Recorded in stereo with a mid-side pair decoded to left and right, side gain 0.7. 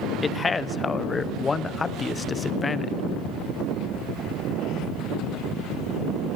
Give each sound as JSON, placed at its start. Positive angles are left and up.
{"t": 0.2, "sound": "a man speaking", "azimuth_deg": 20, "distance_m": 0.8}